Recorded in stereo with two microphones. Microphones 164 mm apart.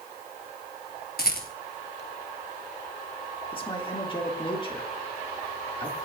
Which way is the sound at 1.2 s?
70° left (ahead or behind).